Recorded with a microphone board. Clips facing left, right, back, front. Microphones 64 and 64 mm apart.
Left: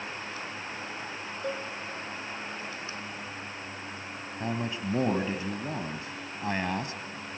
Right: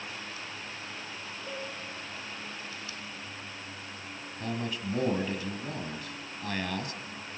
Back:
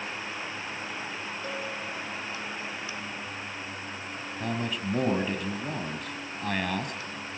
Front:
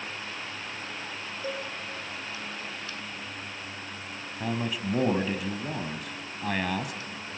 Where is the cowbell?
75° left, 7 m.